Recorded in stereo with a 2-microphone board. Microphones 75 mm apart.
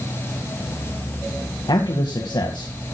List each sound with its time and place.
1.7 s a man speaking: 80° left, 2 m